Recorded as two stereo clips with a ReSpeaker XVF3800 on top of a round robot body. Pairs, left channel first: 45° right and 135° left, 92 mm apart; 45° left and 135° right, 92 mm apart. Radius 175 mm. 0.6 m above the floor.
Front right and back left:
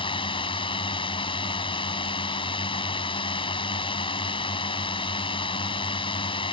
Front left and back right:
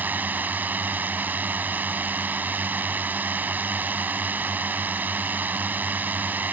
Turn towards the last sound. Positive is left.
turn(degrees=-65)